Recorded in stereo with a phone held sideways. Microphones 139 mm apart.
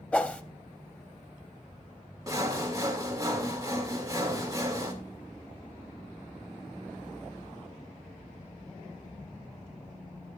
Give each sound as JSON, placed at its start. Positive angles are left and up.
{"t": 0.1, "sound": "a whoosh", "side_deg": 10, "distance_m": 0.6}
{"t": 2.3, "sound": "sawing", "side_deg": -25, "distance_m": 1.8}